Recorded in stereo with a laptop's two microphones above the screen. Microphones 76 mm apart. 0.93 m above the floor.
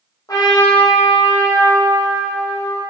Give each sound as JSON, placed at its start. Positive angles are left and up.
{"t": 0.3, "sound": "a trumpet", "side_deg": 55, "distance_m": 1.0}